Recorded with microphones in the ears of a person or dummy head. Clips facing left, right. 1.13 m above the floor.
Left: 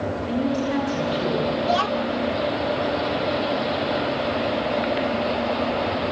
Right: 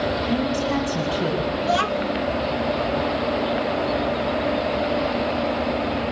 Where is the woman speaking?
60° right (ahead or behind), 8.5 m.